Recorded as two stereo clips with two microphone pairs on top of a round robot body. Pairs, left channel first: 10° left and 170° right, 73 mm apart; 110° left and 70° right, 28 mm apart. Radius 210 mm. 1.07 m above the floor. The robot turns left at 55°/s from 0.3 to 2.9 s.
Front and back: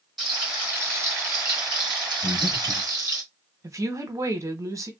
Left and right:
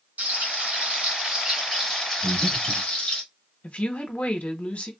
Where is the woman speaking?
145° left, 1.0 m.